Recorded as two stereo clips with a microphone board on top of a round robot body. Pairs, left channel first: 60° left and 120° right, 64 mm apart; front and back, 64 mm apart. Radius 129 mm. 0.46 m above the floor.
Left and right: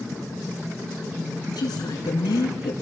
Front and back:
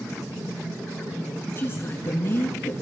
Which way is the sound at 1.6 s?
55° left.